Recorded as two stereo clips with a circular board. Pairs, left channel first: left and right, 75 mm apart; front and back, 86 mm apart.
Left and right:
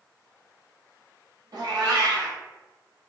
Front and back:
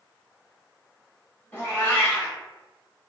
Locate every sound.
1.5 s a cat meowing: 65° right, 0.8 m